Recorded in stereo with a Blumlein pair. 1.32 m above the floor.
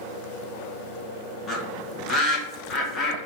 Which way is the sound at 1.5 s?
20° left.